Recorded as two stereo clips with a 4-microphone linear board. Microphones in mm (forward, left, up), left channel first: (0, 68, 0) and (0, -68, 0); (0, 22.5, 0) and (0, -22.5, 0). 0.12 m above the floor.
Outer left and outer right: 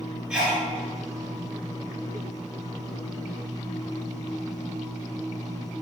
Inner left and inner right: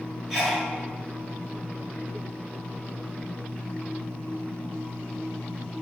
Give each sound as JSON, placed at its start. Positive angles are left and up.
{"t": 0.3, "sound": "a sneeze", "side_deg": -10, "distance_m": 1.3}